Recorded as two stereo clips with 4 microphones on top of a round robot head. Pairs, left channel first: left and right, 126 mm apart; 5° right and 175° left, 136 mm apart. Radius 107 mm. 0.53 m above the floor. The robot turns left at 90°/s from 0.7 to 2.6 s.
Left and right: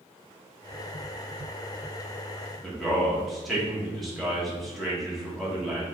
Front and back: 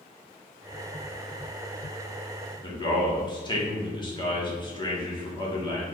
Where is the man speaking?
Straight ahead, 1.4 m.